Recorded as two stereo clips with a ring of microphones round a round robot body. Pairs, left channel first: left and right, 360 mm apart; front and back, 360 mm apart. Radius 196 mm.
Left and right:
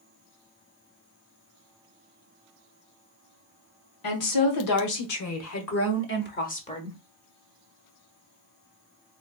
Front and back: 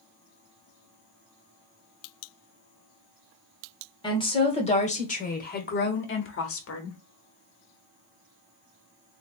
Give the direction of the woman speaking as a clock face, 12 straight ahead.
9 o'clock.